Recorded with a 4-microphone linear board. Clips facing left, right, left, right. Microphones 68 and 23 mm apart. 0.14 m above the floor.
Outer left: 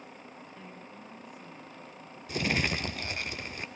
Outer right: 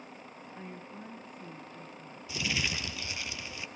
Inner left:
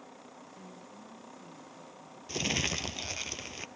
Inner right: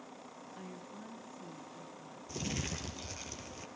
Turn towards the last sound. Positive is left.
turn(degrees=50)  # may be behind; listen again after turning